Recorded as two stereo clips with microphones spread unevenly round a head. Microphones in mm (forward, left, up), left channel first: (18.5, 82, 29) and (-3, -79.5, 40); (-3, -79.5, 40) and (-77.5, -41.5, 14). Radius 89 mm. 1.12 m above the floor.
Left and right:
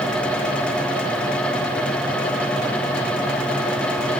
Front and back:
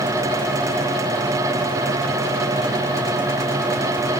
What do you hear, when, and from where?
Only background noise.